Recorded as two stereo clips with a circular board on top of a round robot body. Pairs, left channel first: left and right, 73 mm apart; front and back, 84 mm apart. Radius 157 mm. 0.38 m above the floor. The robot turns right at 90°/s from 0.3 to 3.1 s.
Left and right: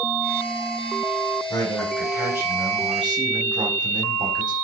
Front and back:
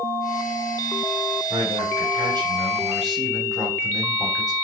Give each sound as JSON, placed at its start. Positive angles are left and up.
{"t": 1.5, "sound": "a man speaking", "azimuth_deg": 130, "distance_m": 3.0}